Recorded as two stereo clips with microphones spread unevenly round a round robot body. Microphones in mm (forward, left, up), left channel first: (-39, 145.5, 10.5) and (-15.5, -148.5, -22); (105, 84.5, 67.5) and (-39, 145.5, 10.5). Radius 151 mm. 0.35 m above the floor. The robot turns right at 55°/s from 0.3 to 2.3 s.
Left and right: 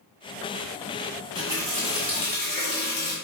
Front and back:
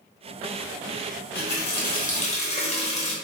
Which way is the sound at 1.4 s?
20° right.